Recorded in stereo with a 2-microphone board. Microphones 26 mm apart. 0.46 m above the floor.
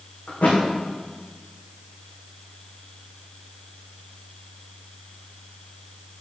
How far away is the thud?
About 5.5 m.